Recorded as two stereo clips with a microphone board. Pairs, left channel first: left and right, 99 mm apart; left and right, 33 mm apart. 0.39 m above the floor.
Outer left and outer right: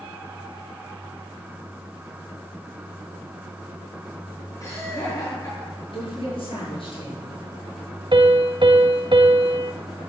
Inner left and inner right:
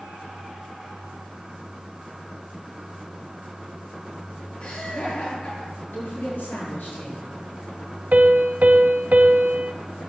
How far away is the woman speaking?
About 7 m.